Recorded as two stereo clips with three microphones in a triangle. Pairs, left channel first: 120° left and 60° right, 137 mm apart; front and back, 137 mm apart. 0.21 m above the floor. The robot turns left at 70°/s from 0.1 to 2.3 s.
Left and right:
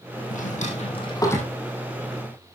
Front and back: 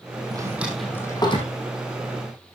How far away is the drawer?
About 4 m.